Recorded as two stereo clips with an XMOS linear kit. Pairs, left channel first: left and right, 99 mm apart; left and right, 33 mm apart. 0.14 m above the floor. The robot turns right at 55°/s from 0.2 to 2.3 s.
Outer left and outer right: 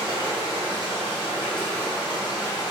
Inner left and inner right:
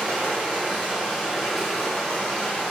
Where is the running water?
75° right, 1.6 m; by 2.7 s 40° left, 1.6 m.